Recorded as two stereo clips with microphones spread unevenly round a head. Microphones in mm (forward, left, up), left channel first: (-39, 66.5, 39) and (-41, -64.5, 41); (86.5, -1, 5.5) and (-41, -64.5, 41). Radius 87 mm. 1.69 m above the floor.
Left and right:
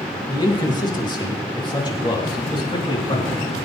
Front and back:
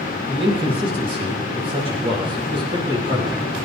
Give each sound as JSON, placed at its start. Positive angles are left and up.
{"t": 0.3, "sound": "a man speaking", "azimuth_deg": 150, "distance_m": 2.5}